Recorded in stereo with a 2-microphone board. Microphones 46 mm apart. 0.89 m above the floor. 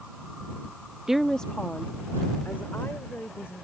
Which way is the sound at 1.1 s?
15° right (ahead or behind).